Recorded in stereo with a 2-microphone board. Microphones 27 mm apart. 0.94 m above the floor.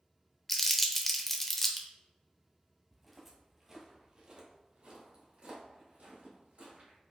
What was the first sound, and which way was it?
Crumpling, 10° left (ahead or behind).